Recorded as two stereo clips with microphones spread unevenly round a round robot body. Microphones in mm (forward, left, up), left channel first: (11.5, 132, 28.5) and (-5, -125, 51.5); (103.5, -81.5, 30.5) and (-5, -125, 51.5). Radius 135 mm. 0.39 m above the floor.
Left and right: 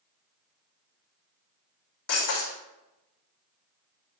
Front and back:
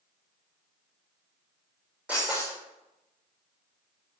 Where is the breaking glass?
120° left, 5.5 m.